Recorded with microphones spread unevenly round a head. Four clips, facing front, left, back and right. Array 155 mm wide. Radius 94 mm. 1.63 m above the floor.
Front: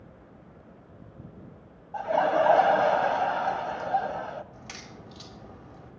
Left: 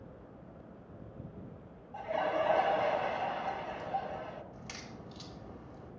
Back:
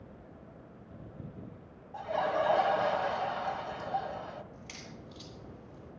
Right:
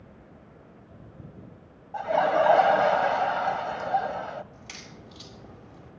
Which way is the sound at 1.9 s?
45° right.